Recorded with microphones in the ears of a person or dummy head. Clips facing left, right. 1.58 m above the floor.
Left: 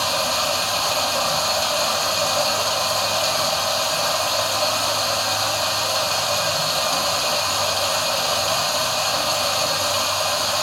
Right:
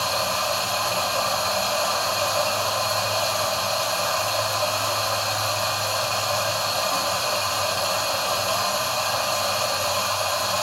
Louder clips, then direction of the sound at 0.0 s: Left 2 dB; 35° left (ahead or behind).